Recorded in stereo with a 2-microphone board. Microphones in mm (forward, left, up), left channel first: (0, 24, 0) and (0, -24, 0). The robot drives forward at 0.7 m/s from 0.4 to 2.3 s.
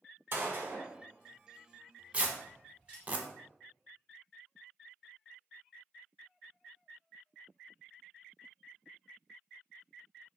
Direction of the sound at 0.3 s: 50° right (ahead or behind).